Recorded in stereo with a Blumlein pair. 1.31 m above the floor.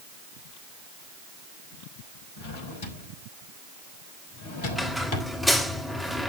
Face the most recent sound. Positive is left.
turn(degrees=0)